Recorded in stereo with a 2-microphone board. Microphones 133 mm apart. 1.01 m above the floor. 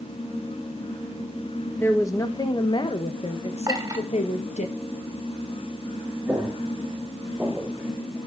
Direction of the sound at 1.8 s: 20° left (ahead or behind).